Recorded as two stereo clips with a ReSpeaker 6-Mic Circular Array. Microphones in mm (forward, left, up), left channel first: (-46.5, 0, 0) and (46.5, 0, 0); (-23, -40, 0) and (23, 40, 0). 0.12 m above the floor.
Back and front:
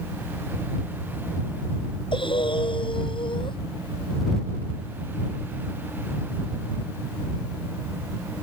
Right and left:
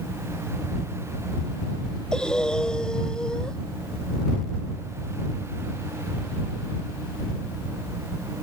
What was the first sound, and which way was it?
Breathing, 160° left.